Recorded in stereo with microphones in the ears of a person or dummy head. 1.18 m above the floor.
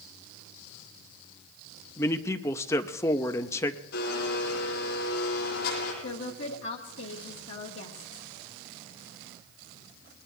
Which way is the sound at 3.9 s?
60° left (ahead or behind).